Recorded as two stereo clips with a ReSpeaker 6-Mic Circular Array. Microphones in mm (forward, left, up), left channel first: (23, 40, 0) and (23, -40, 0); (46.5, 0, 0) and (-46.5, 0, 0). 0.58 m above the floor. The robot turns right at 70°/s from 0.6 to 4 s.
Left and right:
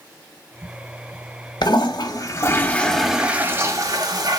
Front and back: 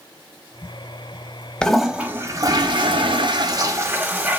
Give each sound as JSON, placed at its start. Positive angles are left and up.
{"t": 1.6, "sound": "a toilet flushing", "azimuth_deg": 80, "distance_m": 0.6}